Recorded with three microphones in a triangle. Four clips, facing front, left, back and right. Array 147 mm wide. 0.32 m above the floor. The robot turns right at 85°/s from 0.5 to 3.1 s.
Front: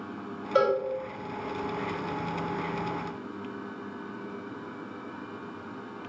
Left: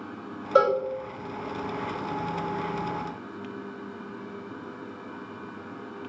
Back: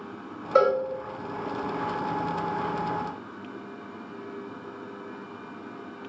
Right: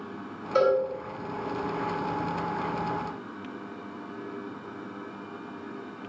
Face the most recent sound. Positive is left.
turn(degrees=-10)